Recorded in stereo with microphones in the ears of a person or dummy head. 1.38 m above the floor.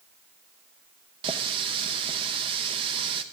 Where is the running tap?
35° right (ahead or behind), 0.7 m.